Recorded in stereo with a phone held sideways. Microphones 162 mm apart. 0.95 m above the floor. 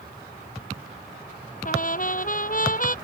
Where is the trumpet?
55° left (ahead or behind).